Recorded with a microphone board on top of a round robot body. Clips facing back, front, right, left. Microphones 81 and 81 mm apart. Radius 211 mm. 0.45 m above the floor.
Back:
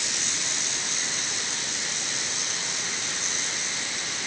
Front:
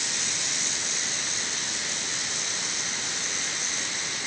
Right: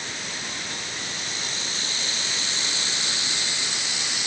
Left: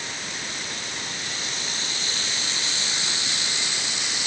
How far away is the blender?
No blender in this recording.